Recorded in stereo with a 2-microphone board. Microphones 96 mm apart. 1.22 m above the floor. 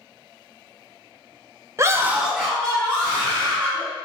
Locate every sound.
1.8 s a scream: 30° right (ahead or behind), 0.6 m; by 3.9 s 15° left (ahead or behind), 3 m